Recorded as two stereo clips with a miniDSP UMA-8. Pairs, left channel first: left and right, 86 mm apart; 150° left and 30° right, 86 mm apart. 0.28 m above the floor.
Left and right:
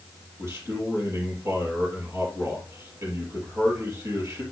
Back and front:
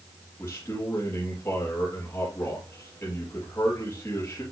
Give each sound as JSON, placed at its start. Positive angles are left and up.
{"t": 0.4, "sound": "a man speaking", "azimuth_deg": -145, "distance_m": 6.0}